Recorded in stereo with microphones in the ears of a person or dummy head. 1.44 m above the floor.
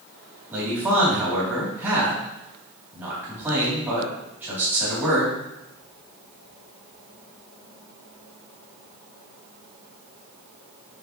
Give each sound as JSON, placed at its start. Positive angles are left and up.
{"t": 0.5, "sound": "a man speaking", "side_deg": -10, "distance_m": 4.0}